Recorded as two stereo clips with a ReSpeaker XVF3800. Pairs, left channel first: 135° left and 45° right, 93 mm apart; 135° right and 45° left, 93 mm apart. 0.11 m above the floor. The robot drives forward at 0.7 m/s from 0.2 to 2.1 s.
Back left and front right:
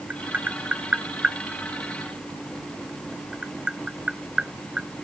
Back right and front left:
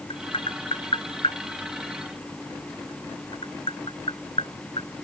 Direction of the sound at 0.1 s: 115° right.